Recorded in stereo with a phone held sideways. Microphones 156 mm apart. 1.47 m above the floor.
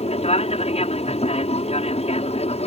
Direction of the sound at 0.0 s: 40° left (ahead or behind).